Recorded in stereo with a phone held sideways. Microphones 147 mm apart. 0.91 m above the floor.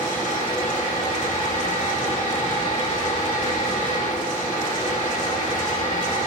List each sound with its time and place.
0.0 s a fan: 55° left (ahead or behind), 1.5 m